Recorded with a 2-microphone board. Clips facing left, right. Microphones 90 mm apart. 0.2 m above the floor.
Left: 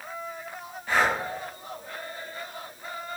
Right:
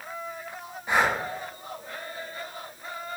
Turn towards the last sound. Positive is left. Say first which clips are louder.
# even
turn(degrees=-20)  # may be behind; listen again after turning